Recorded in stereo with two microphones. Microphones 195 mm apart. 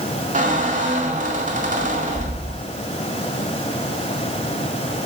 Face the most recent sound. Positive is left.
turn(degrees=-40)  # may be behind; listen again after turning